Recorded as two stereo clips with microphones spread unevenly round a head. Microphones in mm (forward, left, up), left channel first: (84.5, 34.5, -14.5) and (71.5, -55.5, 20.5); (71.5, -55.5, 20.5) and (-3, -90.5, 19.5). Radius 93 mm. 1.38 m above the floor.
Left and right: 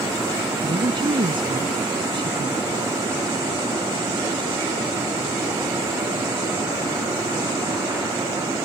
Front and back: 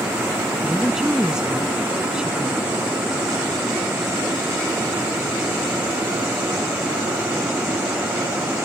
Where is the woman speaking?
70° right; by 2.7 s 75° right.